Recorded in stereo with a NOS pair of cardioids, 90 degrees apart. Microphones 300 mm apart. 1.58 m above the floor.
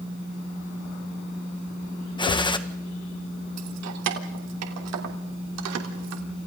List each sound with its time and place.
2.2 s a gunshot: 15° left, 1.8 m
3.6 s keys jangling: 65° right, 3 m